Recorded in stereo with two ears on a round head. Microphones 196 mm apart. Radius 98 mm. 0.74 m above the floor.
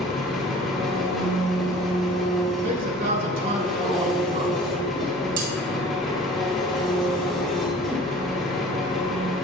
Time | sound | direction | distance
0.0 | an engine running | centre (ahead or behind) | 2.0 m
2.6 | a man speaking | 40° right (ahead or behind) | 2.5 m
5.4 | cutlery clinking | 80° right | 3 m